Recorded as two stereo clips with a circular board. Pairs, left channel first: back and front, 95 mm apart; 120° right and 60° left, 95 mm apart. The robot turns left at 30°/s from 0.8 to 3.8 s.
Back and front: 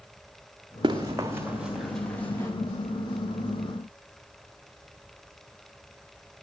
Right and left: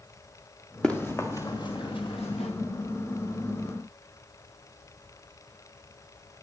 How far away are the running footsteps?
About 1.8 m.